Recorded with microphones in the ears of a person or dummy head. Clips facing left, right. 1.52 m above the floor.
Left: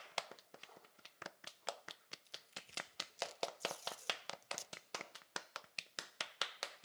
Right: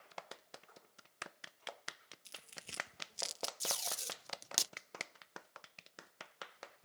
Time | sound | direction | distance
2.2 | tearing paper | 65° right (ahead or behind) | ?
3.6 | tape being pulled | 80° right | ?